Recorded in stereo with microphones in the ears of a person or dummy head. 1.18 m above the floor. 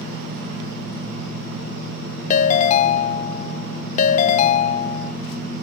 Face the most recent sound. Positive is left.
turn(degrees=40)  # may be behind; listen again after turning